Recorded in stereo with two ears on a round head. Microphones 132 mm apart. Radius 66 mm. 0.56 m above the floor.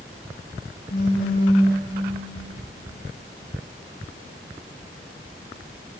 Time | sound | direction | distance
0.9 | a phone buzzing | 85° left | 0.9 m